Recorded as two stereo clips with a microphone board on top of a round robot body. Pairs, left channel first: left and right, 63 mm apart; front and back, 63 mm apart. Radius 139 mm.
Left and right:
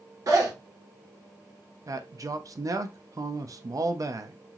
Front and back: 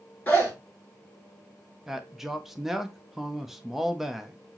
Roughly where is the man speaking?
Right.